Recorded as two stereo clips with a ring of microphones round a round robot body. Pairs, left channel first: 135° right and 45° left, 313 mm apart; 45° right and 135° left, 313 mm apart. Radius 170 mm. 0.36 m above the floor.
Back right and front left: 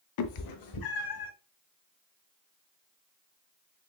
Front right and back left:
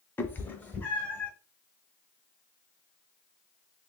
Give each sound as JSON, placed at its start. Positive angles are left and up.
{"t": 0.2, "sound": "a cat meowing", "azimuth_deg": -130, "distance_m": 0.6}